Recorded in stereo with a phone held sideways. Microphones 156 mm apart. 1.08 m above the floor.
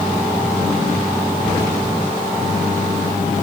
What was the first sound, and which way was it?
Only background noise.